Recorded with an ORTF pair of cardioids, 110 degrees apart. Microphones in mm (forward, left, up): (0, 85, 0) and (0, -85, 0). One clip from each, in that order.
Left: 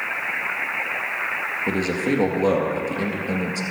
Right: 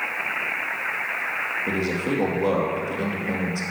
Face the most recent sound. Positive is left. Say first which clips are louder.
# left 2 dB
turn(degrees=25)